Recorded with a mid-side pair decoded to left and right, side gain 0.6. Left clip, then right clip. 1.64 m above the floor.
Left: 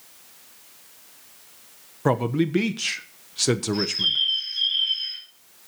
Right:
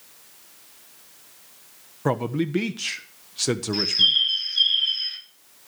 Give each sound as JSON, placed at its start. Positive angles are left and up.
{"t": 2.0, "sound": "a man speaking", "azimuth_deg": 10, "distance_m": 1.2}
{"t": 3.7, "sound": "a bird", "azimuth_deg": -45, "distance_m": 5.0}